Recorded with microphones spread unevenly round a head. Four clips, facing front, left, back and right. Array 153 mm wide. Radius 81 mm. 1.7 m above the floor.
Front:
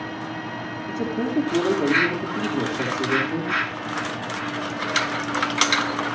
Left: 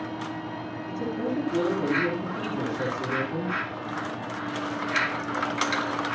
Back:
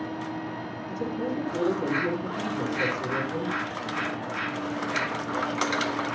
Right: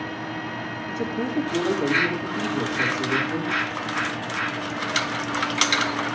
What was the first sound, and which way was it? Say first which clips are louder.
A man speaking: right 2 dB, front 5 dB; 15° right.